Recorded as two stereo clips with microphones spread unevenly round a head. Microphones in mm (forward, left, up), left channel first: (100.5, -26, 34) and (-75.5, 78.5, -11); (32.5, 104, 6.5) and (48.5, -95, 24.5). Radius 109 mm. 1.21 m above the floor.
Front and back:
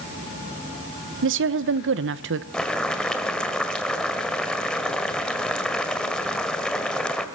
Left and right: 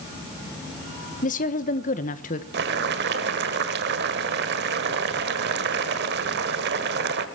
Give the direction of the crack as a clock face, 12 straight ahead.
I don't hear a crack.